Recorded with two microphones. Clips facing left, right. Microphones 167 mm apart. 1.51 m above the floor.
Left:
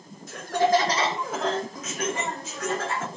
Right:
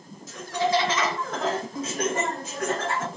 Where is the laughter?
60° left (ahead or behind), 0.9 m; by 3.1 s 65° right (ahead or behind), 1.2 m.